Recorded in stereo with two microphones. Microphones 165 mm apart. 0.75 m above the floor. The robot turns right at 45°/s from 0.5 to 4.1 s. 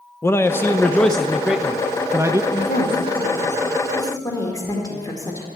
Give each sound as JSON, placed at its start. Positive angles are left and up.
{"t": 0.2, "sound": "a man speaking", "side_deg": 15, "distance_m": 0.6}
{"t": 2.5, "sound": "a woman speaking", "side_deg": 75, "distance_m": 2.0}